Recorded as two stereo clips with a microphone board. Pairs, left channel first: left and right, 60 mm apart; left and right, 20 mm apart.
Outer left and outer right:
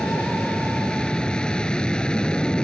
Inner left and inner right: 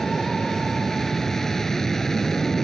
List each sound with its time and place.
0.0 s an aircraft: 15° left (ahead or behind)